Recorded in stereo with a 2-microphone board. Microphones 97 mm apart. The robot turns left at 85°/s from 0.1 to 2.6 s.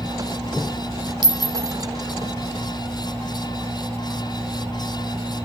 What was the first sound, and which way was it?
A clink, 50° right (ahead or behind).